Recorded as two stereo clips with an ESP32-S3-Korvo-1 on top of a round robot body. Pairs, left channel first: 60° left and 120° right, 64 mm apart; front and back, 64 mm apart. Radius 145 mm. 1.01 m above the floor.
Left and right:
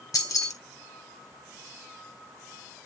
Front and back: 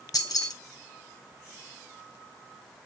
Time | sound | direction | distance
0.1 | keys jangling | 25° left | 1.9 m